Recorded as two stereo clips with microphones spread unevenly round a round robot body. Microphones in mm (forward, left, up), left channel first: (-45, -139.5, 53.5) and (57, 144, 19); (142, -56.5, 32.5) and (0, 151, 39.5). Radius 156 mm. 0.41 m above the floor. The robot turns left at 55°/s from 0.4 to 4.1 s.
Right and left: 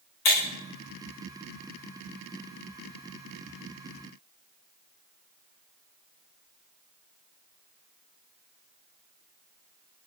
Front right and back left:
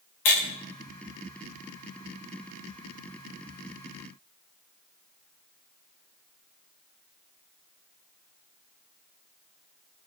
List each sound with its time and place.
0.2 s breaking glass: 70° right, 9 m; by 0.5 s 75° right, 9 m